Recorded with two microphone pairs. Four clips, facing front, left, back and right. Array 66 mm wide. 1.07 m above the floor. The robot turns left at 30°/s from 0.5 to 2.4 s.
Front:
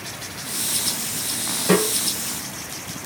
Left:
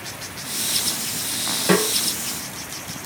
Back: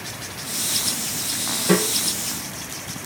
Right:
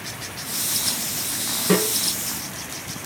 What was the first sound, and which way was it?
A snare drum, 85° left.